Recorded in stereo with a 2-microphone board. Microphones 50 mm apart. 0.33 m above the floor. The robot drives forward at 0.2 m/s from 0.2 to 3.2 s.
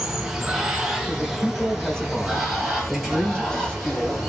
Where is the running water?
10° right (ahead or behind), 0.7 m; by 4.3 s 5° right (ahead or behind), 1.3 m.